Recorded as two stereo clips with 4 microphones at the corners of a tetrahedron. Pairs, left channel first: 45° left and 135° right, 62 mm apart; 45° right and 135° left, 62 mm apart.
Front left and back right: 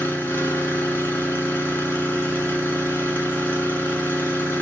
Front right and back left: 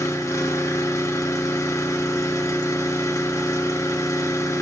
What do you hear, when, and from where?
0.0 s an engine running: 15° right, 2.5 m